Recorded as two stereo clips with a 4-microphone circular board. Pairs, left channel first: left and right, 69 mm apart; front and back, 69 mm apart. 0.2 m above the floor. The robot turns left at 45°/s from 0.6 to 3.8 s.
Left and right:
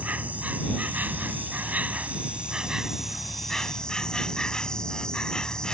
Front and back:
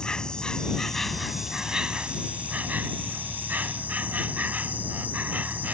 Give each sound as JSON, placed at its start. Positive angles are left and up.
{"t": 0.0, "sound": "an insect", "azimuth_deg": -60}